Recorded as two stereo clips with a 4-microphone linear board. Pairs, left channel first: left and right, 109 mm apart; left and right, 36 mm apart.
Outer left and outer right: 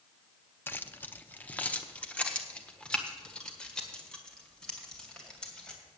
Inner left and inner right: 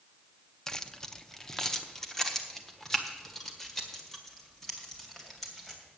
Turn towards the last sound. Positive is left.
turn(degrees=5)  # may be behind; listen again after turning